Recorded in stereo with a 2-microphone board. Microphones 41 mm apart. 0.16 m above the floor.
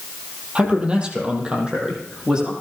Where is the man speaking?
30° right (ahead or behind), 4.5 m; by 2.5 s 25° right (ahead or behind), 6.5 m.